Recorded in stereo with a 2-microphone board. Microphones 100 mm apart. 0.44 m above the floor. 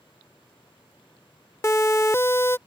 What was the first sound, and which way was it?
A siren, 25° left (ahead or behind).